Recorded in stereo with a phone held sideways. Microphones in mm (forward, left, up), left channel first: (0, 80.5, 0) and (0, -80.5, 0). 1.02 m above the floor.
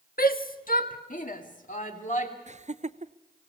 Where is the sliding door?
No sliding door in this recording.